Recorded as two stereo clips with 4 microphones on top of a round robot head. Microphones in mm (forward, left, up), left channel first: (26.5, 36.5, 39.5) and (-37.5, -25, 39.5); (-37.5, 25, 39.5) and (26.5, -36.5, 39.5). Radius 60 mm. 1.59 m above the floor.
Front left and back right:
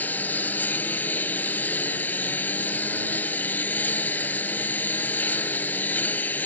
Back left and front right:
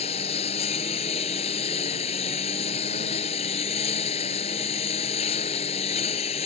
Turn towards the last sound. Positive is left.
turn(degrees=115)